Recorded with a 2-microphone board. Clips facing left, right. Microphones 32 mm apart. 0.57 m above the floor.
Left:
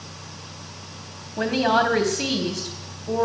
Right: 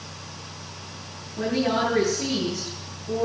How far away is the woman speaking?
About 3.5 m.